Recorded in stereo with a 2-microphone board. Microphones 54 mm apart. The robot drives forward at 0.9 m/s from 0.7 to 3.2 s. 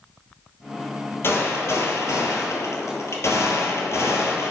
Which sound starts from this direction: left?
A gunshot, at 1.2 s.